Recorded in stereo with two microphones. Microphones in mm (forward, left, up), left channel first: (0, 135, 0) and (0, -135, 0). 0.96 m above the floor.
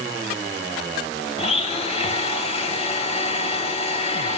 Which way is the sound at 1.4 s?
25° left (ahead or behind).